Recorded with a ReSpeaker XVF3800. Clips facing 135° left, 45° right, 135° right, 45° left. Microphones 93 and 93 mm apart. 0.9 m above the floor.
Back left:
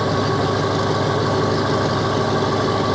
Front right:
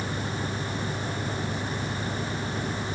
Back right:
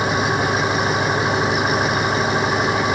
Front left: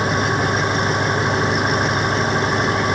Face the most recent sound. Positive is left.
turn(degrees=135)